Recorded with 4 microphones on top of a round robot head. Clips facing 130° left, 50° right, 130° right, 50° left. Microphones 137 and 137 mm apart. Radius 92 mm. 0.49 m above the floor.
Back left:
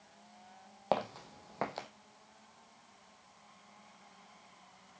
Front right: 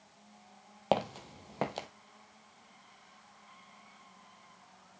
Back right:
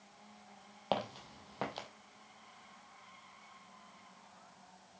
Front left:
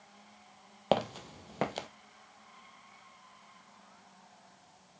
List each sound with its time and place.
0.9 s footsteps: 15° left, 0.6 m